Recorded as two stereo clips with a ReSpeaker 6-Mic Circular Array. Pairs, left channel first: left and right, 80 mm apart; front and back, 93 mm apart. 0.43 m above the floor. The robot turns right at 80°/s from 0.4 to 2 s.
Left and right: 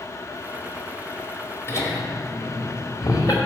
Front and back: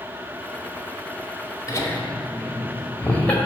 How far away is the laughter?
About 2 m.